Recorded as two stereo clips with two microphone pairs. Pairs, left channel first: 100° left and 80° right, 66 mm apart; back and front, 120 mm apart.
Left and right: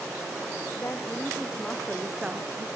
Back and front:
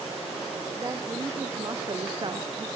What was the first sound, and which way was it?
A woman speaking, 55° left.